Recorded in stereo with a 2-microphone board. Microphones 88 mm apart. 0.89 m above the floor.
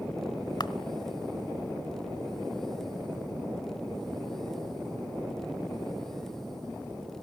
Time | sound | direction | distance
0.6 | a camera shutter | 50° left (ahead or behind) | 0.9 m